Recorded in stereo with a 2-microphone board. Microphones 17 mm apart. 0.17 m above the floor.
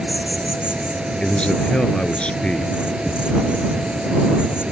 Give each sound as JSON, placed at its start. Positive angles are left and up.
{"t": 0.0, "sound": "an insect", "side_deg": -65}
{"t": 1.2, "sound": "a man speaking", "side_deg": 60}